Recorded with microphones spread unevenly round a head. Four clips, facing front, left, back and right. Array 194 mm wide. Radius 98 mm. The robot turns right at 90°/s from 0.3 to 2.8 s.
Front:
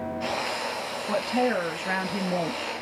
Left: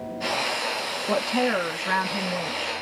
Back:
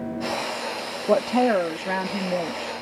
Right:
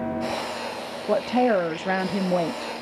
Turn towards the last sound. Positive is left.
turn(degrees=-15)